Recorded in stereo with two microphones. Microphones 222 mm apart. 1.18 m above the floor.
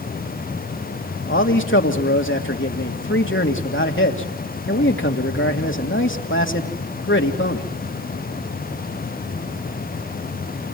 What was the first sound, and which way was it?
A man speaking, 65° left (ahead or behind).